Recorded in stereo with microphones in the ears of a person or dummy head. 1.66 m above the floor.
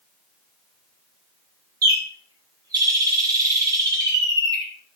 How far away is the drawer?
No drawer in this recording.